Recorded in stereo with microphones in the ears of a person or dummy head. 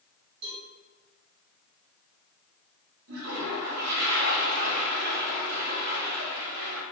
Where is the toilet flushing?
75° right (ahead or behind), 1.2 m.